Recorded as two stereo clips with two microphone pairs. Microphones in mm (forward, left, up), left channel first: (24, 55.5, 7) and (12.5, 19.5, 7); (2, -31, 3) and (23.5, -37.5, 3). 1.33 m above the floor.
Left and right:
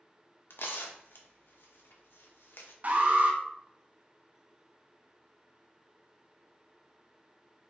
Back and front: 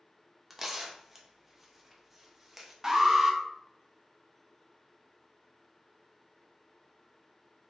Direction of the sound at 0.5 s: 60° left.